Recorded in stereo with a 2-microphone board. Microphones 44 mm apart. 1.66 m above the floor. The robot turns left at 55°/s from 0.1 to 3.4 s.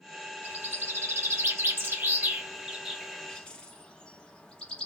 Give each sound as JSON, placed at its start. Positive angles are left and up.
{"t": 0.4, "sound": "a bird", "side_deg": -40, "distance_m": 0.8}